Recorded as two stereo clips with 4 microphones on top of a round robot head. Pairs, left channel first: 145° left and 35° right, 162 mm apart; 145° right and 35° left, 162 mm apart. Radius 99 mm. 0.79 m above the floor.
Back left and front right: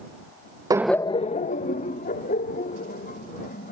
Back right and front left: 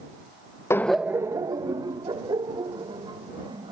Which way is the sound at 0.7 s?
85° right.